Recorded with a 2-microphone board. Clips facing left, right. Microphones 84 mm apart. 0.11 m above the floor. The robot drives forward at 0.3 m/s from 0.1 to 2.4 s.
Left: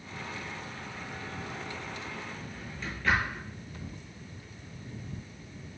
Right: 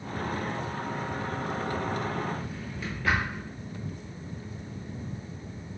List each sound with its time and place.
2.4 s a drawer: 10° right (ahead or behind), 1.1 m